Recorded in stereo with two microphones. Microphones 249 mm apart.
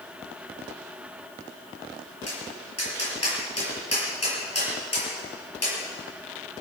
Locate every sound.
2.3 s tapping: 75° left (ahead or behind), 6.5 m